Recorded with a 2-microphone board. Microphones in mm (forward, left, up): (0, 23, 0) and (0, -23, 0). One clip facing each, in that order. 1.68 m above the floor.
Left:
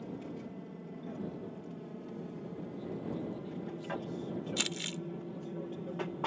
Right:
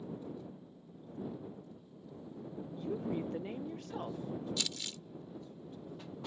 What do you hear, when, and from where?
0.0 s an aircraft: 65° left (ahead or behind); by 6.3 s 55° left (ahead or behind)
2.8 s a woman speaking: 75° right (ahead or behind)
4.6 s crumpling: 45° left (ahead or behind)